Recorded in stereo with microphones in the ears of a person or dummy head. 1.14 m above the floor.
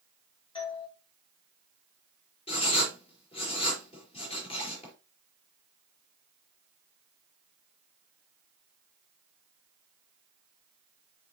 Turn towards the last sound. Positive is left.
turn(degrees=30)  # may be behind; listen again after turning